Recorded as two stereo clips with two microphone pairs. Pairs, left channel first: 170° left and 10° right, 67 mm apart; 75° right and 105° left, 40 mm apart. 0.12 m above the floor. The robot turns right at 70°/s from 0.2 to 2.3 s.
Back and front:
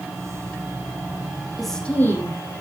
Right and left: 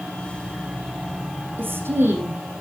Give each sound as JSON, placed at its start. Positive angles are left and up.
{"t": 1.6, "sound": "a woman speaking", "azimuth_deg": 80, "distance_m": 5.0}